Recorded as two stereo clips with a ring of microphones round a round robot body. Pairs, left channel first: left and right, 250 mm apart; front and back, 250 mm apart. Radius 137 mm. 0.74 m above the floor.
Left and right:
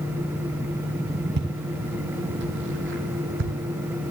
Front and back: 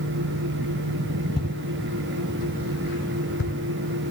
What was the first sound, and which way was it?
Footsteps, 70° right.